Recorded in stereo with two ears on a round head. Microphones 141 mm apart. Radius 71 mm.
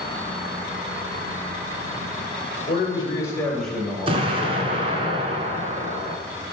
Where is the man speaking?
40° left (ahead or behind), 2.5 m; by 5.1 s 35° right (ahead or behind), 3.5 m.